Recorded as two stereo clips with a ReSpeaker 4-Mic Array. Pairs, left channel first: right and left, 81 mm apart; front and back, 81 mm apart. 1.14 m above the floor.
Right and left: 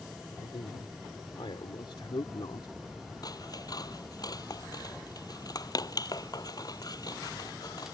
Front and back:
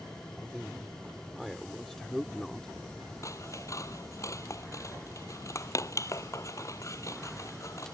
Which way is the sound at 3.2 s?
50° right.